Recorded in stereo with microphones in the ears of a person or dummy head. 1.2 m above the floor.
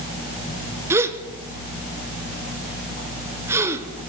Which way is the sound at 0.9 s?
15° right (ahead or behind).